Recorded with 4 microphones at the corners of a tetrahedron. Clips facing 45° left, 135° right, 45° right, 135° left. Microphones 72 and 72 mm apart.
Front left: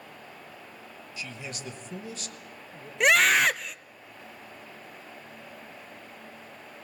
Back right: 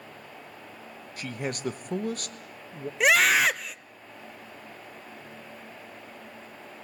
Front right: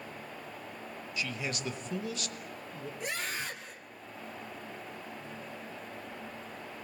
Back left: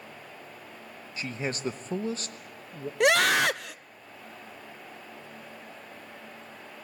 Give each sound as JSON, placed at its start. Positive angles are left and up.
{"t": 1.2, "sound": "a man speaking", "azimuth_deg": -170, "distance_m": 1.3}
{"t": 3.0, "sound": "a scream", "azimuth_deg": 135, "distance_m": 0.7}